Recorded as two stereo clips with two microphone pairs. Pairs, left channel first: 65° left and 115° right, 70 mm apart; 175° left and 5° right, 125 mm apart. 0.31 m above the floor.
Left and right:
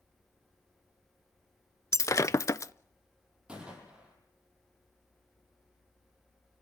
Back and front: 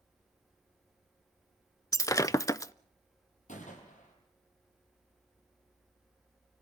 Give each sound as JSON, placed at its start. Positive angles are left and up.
{"t": 1.9, "sound": "breaking glass", "azimuth_deg": 105, "distance_m": 0.6}
{"t": 3.5, "sound": "a gunshot", "azimuth_deg": 170, "distance_m": 8.0}